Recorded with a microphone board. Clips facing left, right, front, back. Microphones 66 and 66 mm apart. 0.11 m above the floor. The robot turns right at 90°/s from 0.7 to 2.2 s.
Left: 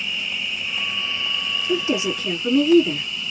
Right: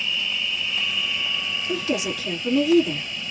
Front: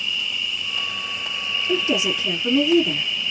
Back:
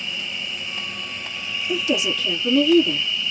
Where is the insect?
160° left, 1.6 m; by 3.3 s 65° right, 1.6 m.